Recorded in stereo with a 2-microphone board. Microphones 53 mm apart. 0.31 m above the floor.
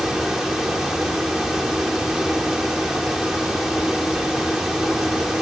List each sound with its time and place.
Only background noise.